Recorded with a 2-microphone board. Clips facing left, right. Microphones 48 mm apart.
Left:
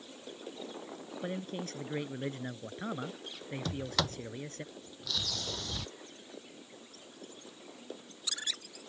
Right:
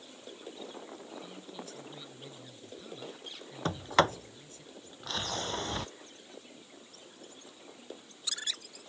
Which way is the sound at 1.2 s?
60° left (ahead or behind).